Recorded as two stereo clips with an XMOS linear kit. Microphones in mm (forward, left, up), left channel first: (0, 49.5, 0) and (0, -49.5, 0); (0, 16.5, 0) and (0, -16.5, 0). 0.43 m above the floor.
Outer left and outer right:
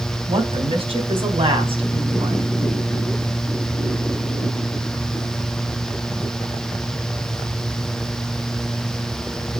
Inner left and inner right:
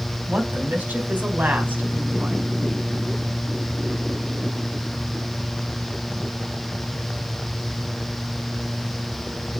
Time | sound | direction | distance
0.3 | a woman speaking | 65° right (ahead or behind) | 3 m